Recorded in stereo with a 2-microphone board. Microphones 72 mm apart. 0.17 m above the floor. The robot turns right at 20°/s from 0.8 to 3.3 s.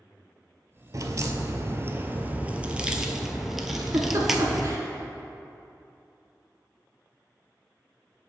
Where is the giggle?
45° right (ahead or behind), 1.3 m.